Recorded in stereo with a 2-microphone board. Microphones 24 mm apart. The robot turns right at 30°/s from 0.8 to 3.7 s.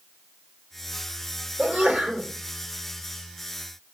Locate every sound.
1.6 s a sneeze: 70° right (ahead or behind), 1.7 m; by 2.3 s 55° right (ahead or behind), 1.7 m